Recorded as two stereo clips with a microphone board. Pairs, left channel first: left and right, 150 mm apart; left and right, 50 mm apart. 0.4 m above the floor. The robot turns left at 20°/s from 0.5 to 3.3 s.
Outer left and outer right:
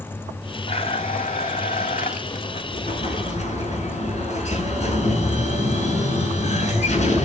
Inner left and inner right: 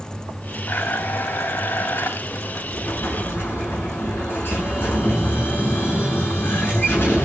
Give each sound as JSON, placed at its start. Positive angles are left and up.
{"t": 0.7, "sound": "a blender", "azimuth_deg": 125, "distance_m": 1.6}
{"t": 2.7, "sound": "an explosion", "side_deg": 65, "distance_m": 6.0}